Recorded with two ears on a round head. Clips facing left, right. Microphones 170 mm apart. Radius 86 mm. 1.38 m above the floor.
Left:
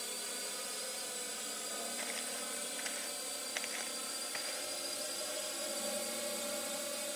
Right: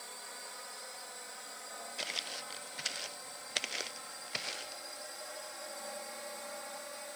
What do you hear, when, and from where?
0.0 s a drone: 40° left (ahead or behind)
2.0 s footsteps: 40° right (ahead or behind); by 4.8 s 45° right (ahead or behind)